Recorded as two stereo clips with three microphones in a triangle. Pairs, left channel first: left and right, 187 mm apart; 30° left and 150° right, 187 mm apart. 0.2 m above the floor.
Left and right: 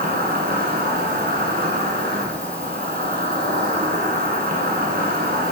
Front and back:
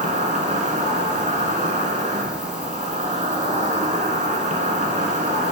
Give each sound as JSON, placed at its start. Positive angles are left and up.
{"t": 0.0, "sound": "an insect", "azimuth_deg": -110, "distance_m": 1.4}